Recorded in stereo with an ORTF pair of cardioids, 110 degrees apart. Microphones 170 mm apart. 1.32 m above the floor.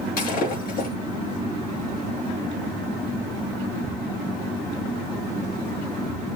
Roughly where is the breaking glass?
Ahead left.